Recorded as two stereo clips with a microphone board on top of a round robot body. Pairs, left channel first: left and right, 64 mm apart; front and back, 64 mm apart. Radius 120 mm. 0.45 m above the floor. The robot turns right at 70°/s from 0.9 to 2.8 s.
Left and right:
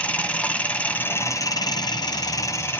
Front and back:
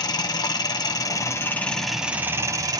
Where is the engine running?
20° left, 1.6 m; by 2.8 s 155° left, 1.6 m.